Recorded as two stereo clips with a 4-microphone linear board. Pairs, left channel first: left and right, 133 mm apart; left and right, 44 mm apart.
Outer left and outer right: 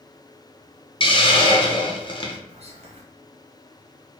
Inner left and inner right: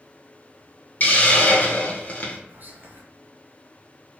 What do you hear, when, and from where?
1.0 s a hiss: 40° left (ahead or behind), 0.9 m
2.5 s whispering: 50° right (ahead or behind), 1.0 m